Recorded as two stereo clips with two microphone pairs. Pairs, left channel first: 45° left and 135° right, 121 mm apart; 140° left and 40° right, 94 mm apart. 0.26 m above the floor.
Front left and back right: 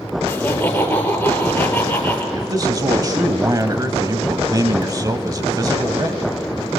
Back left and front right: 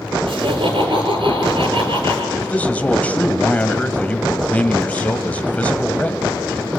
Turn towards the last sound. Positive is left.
turn(degrees=-160)